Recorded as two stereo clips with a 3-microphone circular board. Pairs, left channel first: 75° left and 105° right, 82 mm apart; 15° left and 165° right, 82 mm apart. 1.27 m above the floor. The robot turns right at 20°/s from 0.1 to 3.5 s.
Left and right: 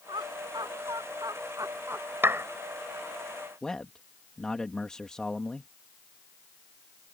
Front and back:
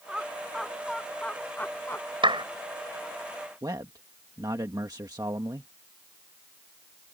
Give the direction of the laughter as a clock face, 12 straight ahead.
3 o'clock.